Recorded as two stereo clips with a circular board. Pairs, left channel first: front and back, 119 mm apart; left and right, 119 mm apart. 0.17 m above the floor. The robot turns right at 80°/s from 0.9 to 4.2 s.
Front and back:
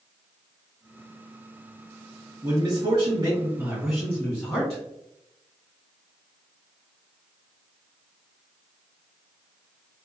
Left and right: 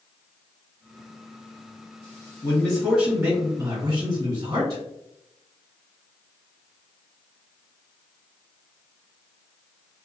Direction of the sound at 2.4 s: 140° left.